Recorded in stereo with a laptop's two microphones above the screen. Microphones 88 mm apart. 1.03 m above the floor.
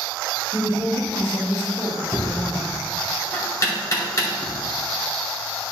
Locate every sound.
0.5 s a woman speaking: 55° left (ahead or behind), 3 m
2.1 s knocking: 35° left (ahead or behind), 2.5 m